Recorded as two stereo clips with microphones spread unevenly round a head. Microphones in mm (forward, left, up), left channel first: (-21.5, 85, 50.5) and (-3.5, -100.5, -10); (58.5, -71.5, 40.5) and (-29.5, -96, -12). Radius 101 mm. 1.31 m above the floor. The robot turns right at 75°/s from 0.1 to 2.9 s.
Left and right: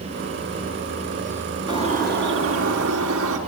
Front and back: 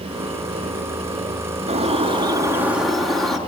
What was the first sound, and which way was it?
A bird, 160° right.